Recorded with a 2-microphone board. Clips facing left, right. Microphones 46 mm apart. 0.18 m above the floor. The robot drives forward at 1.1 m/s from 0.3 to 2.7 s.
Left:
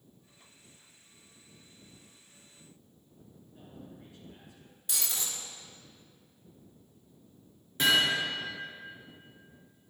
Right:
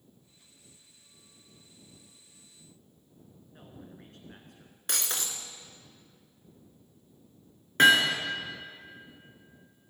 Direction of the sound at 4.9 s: 60° right (ahead or behind).